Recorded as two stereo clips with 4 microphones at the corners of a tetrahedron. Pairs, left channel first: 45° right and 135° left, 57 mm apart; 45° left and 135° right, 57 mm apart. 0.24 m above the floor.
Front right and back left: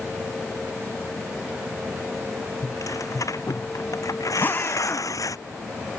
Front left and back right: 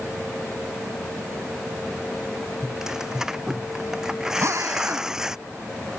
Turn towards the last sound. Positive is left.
turn(degrees=-100)